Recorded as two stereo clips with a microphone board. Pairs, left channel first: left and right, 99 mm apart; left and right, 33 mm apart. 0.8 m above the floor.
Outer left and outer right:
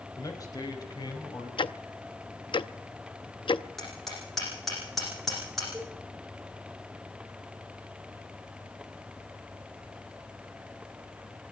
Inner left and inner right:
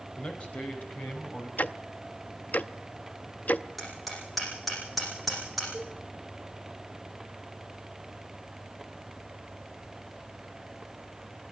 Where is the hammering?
Centre (ahead or behind), 10 m.